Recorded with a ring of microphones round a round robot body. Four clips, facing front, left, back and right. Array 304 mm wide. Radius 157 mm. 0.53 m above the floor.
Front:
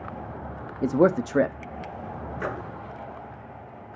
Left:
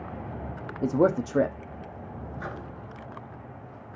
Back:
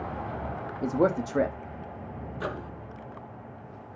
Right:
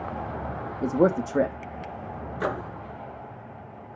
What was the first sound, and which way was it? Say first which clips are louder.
A man speaking: right 1 dB, front 5 dB; 5° right.